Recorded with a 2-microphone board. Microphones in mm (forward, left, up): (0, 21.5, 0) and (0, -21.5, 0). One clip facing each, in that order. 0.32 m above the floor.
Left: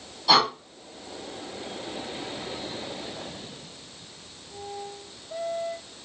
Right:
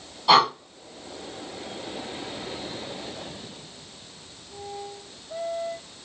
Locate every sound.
0.3 s breathing: 25° right (ahead or behind), 1.5 m